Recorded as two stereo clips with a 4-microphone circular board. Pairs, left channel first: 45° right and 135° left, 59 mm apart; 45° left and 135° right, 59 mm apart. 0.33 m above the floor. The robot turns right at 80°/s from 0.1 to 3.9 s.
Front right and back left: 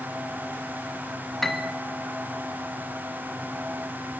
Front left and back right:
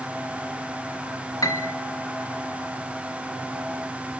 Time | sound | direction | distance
1.4 | a piano | 40° left | 0.7 m